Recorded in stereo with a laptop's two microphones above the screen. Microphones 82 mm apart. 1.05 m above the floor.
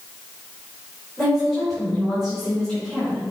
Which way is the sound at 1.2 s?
5° right (ahead or behind).